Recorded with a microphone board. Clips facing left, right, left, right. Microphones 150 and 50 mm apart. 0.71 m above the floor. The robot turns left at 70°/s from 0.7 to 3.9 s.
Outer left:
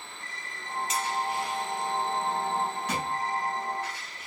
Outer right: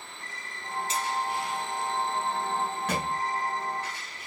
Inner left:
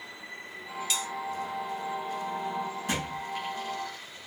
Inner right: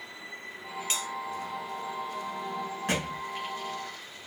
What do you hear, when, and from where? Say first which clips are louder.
0.9 s a bell: even, inner left 1 dB; 35° right (ahead or behind), 1.2 m; by 1.1 s 45° right (ahead or behind), 1.2 m
2.9 s a thud: outer right 1 dB, inner right 4 dB; 50° right (ahead or behind), 1.5 m; by 3.2 s 30° right (ahead or behind), 1.5 m